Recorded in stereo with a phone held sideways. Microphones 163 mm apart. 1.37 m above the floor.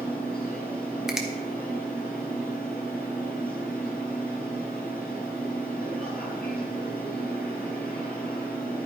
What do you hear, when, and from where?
0.0 s a machine running: 65° left (ahead or behind), 5 m
1.1 s a finger snap: 5° right (ahead or behind), 1.5 m